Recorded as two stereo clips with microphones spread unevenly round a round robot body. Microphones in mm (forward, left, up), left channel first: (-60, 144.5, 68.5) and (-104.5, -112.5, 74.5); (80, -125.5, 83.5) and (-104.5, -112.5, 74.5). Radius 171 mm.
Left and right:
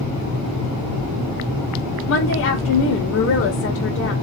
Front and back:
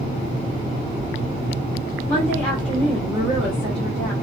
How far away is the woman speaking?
About 1.4 m.